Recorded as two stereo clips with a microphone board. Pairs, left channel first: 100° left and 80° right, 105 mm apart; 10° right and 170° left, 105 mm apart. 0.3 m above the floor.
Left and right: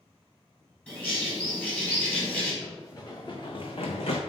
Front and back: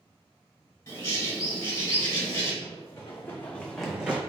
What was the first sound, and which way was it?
A bird, 35° left.